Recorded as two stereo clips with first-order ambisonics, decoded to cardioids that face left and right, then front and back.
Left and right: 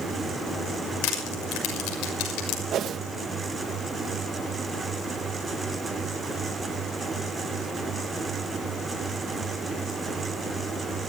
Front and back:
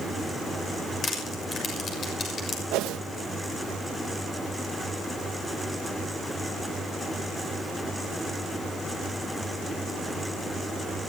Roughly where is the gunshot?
No gunshot in this recording.